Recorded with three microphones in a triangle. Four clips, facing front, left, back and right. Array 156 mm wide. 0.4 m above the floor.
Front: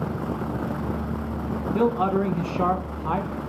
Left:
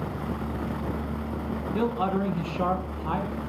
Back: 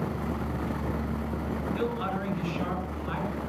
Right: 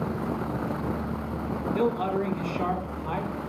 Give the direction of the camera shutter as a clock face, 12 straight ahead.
No camera shutter in this recording.